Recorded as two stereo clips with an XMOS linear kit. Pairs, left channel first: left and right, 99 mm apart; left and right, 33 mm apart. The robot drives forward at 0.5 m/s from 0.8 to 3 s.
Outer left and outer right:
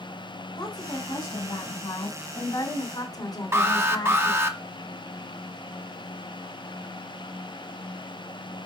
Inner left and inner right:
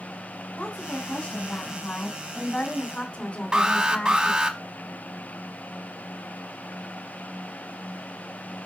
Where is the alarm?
25° right (ahead or behind), 0.9 m.